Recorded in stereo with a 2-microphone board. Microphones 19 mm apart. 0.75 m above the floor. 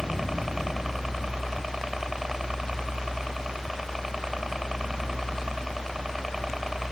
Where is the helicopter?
20° right (ahead or behind).